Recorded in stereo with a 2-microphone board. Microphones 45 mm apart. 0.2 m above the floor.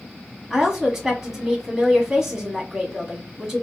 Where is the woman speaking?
10° right (ahead or behind), 1.2 m.